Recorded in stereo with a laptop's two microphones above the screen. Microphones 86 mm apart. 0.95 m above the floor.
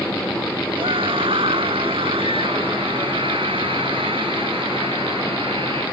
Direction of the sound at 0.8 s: 85° right.